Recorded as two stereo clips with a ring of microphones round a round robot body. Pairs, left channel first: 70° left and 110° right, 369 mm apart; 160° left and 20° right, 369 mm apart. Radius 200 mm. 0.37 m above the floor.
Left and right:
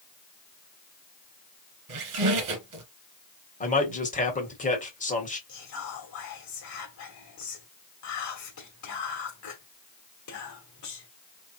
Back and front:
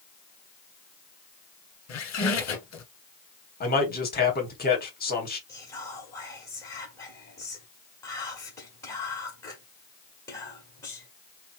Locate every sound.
1.9 s a squeak: 155° right, 1.4 m
3.6 s a man speaking: 120° left, 1.3 m
5.5 s whispering: 75° left, 1.4 m